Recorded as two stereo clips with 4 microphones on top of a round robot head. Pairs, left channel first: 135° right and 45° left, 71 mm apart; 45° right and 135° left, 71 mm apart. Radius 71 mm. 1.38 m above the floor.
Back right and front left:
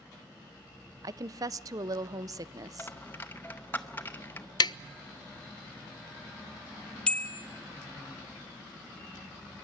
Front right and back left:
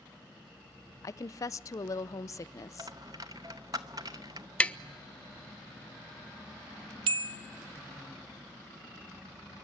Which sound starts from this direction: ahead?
A woman speaking, at 1.0 s.